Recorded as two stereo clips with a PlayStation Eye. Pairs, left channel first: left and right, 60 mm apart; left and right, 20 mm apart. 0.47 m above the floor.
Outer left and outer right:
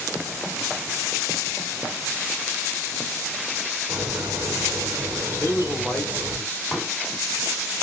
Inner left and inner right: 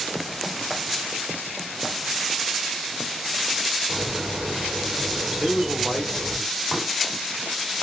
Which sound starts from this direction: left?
A man speaking, at 5.4 s.